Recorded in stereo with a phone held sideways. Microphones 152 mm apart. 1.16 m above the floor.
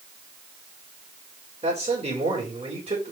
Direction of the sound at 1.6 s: 45° right (ahead or behind).